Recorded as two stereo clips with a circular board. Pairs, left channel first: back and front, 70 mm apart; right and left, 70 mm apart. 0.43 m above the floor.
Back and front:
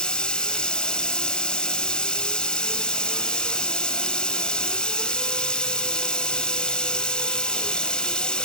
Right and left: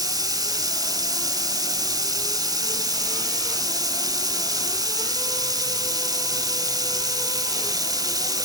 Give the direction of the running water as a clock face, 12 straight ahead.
9 o'clock.